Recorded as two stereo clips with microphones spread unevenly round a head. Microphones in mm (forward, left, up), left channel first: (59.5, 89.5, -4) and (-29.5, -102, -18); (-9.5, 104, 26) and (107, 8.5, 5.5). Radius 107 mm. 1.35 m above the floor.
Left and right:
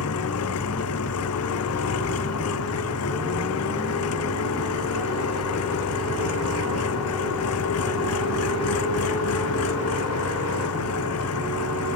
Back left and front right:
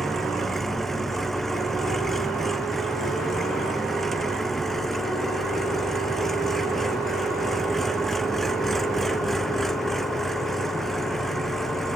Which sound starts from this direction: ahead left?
An engine running, at 0.0 s.